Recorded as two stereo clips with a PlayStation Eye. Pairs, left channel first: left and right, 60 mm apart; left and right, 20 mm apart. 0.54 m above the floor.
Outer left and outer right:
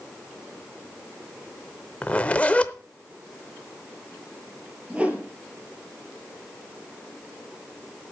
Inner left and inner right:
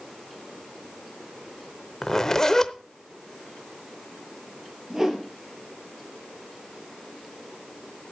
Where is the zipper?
25° left (ahead or behind), 0.7 m.